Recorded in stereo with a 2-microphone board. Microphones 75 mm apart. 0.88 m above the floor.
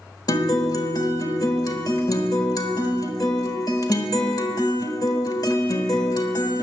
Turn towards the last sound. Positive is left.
turn(degrees=50)  # may be behind; listen again after turning